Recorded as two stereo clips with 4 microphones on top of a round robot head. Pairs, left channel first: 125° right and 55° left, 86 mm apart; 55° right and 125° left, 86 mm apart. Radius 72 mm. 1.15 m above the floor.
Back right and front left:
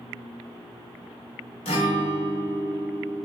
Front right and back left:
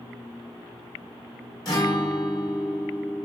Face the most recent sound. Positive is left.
turn(degrees=-105)